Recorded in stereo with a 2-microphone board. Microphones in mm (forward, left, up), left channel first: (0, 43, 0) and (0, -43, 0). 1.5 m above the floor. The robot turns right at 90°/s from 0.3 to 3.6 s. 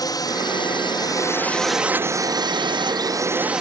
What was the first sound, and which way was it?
A drone, 55° left.